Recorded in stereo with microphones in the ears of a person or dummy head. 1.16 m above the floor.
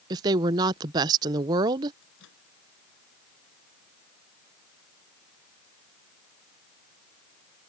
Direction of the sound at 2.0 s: 70° left (ahead or behind).